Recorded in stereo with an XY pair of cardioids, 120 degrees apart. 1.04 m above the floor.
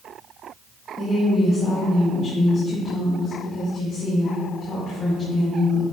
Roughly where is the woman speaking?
Ahead left.